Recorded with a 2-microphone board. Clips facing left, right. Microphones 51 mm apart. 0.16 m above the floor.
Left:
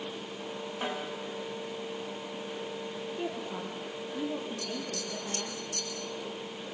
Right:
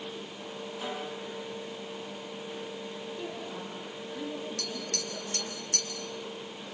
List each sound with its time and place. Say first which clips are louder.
0.8 s a snare drum: left 2 dB; 40° left (ahead or behind), 7.5 m
3.1 s a woman speaking: left 2 dB; 30° left (ahead or behind), 5.5 m
4.6 s tapping: left 1 dB; 65° right (ahead or behind), 4 m